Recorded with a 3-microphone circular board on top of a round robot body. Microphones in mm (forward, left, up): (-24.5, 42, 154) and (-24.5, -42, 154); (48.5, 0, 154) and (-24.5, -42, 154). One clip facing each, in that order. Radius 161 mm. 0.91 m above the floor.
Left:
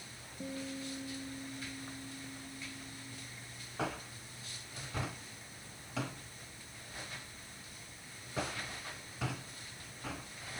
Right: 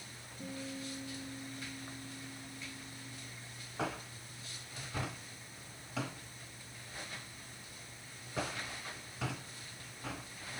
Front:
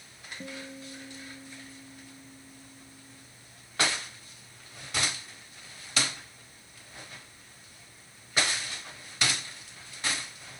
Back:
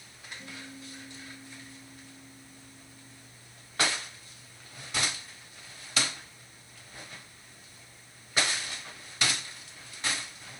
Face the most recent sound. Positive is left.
turn(degrees=20)